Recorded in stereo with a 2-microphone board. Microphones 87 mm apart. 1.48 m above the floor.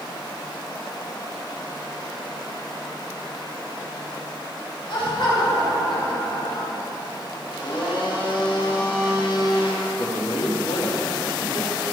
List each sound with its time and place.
4.9 s laughter: 65° left (ahead or behind), 5 m
7.5 s a blender: 80° left, 2.5 m
10.0 s a man speaking: 80° left, 3 m